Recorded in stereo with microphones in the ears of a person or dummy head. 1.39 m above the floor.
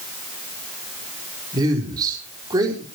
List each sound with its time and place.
1.5 s a man speaking: 20° right (ahead or behind), 4.5 m